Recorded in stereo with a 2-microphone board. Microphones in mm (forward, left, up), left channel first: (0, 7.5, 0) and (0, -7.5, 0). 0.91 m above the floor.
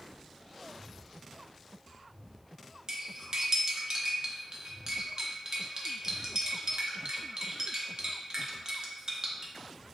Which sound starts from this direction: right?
Cutlery clinking, at 2.9 s.